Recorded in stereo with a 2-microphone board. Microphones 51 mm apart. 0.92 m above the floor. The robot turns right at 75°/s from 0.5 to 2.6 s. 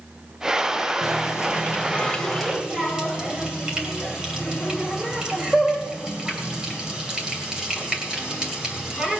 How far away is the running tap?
About 3 m.